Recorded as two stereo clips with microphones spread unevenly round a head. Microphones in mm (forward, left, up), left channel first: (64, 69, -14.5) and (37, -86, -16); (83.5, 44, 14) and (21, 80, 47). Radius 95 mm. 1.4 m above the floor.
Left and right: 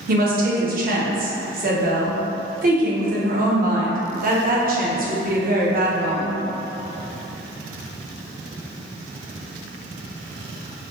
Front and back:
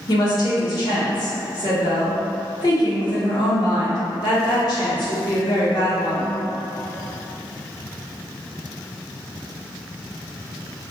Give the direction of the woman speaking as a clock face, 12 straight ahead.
2 o'clock.